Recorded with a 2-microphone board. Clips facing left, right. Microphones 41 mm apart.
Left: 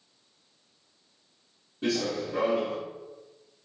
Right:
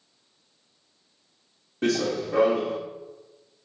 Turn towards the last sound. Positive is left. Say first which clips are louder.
# right 4 dB
turn(degrees=-65)  # may be behind; listen again after turning